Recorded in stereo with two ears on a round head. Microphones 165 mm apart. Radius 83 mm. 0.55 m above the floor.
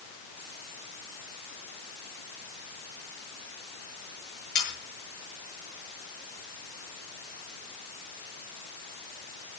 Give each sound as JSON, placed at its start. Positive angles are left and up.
{"t": 4.5, "sound": "sawing", "side_deg": 55, "distance_m": 8.5}